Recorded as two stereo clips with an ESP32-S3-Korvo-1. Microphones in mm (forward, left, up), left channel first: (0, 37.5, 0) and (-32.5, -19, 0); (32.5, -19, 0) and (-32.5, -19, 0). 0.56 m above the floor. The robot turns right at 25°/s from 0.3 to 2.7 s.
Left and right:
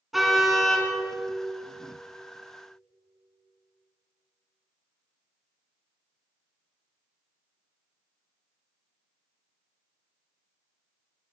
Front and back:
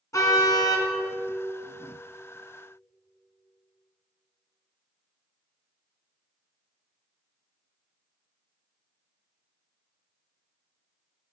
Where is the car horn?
30° right, 3 m; by 0.9 s 15° right, 3 m.